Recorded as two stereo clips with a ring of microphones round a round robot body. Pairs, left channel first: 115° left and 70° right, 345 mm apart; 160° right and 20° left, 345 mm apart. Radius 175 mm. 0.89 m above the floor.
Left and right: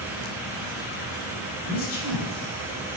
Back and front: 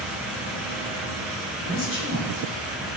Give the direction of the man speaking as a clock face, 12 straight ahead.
7 o'clock.